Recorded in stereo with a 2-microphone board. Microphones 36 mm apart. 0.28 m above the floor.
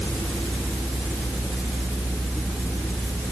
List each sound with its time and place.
Only background noise.